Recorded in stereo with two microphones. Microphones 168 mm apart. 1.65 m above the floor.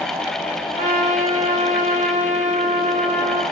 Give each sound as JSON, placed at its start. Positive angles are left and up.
{"t": 0.8, "sound": "a trumpet", "side_deg": -45, "distance_m": 0.6}